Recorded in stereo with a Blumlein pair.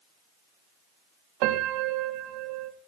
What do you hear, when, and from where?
1.4 s a piano: 40° right, 1.9 m